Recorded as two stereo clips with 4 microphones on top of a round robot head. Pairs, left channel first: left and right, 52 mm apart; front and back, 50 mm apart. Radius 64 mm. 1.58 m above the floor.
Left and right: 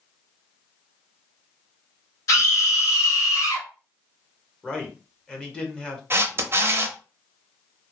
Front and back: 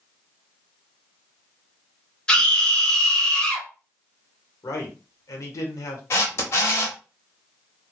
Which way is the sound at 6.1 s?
45° right.